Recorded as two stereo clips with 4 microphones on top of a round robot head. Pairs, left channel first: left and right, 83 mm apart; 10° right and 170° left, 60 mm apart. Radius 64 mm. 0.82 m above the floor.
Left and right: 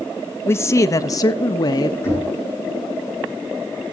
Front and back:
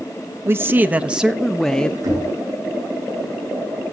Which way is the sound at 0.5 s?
140° left.